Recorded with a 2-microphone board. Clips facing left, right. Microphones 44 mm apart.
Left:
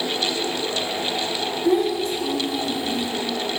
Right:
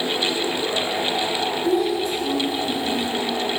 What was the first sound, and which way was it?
A child speaking, 65° left (ahead or behind).